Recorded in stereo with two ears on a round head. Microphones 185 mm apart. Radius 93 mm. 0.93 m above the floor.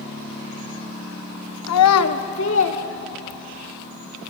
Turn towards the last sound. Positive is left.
turn(degrees=55)  # may be behind; listen again after turning